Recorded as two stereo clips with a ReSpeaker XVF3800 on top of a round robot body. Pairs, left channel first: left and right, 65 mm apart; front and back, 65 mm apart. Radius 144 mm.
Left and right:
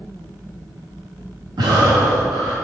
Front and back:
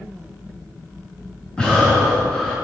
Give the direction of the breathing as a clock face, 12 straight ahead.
3 o'clock.